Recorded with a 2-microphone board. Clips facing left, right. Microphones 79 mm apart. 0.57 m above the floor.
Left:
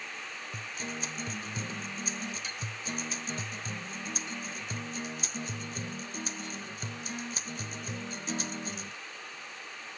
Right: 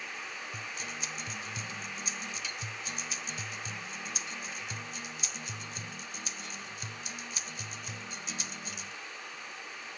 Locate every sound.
0.5 s a guitar: 40° left (ahead or behind)